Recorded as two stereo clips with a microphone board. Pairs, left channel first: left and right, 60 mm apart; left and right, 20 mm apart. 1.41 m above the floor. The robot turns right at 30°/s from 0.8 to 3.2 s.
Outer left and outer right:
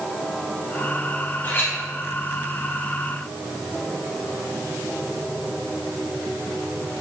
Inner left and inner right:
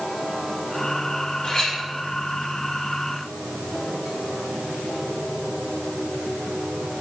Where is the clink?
40° left (ahead or behind), 1.6 m; by 1.8 s 25° left (ahead or behind), 1.6 m.